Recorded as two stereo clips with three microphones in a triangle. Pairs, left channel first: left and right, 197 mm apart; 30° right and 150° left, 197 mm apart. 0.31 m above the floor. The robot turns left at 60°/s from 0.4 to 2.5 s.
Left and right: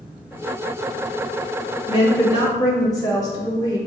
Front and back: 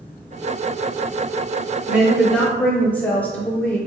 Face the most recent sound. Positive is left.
turn(degrees=40)